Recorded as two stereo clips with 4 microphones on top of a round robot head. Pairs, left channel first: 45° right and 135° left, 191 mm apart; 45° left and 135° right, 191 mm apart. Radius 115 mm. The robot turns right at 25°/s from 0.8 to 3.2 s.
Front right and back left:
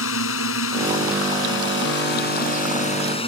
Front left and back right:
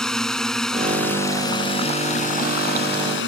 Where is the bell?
No bell in this recording.